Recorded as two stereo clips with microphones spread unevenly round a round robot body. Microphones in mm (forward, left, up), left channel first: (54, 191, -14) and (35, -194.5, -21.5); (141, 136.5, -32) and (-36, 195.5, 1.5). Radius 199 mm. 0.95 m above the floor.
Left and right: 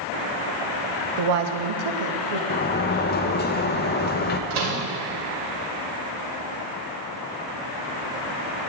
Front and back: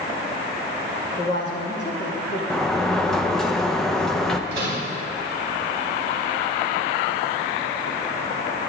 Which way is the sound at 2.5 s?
45° left.